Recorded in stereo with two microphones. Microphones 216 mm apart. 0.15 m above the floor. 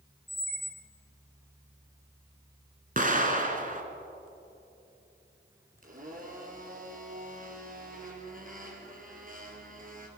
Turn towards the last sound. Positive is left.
turn(degrees=-40)  # may be behind; listen again after turning